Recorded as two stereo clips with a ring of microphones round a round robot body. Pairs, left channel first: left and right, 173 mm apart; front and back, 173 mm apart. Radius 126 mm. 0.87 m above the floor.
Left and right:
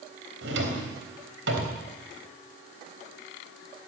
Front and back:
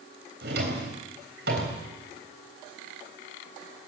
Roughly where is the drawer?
Behind right.